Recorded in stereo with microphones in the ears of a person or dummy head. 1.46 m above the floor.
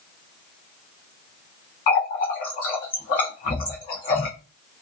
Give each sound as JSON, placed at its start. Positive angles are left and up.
{"t": 1.9, "sound": "a running tap", "side_deg": 25, "distance_m": 0.7}